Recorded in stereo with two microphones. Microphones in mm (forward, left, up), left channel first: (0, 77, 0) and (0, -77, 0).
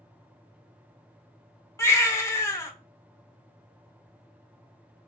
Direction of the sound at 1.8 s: 20° left (ahead or behind).